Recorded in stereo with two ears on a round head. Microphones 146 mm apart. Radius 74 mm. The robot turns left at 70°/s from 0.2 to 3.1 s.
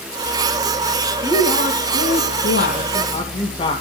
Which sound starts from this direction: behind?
A woman speaking, at 1.2 s.